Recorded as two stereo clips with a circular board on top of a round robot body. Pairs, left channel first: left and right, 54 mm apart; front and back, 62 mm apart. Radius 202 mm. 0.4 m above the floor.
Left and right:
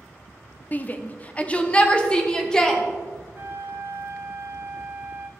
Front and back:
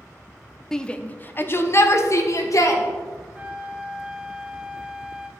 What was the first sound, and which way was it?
A shout, 75° left.